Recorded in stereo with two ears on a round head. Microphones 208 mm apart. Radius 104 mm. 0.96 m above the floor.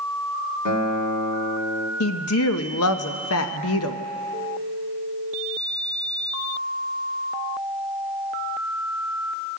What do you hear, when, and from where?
0.7 s a guitar: 80° left, 1.5 m
2.0 s a woman speaking: 65° left (ahead or behind), 0.8 m